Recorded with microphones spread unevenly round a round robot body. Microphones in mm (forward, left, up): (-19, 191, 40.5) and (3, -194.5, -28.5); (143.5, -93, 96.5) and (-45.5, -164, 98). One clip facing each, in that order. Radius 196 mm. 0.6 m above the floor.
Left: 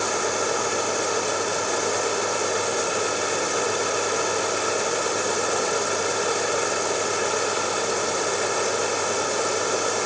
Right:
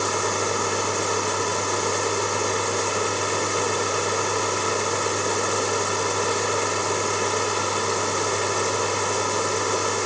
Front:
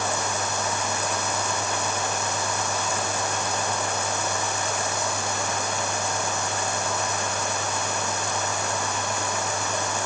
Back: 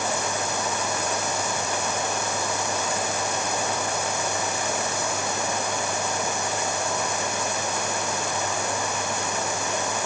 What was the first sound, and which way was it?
Only background noise.